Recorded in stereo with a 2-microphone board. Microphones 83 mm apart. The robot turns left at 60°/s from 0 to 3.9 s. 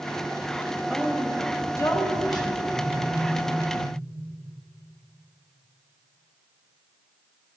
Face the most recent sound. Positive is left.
turn(degrees=105)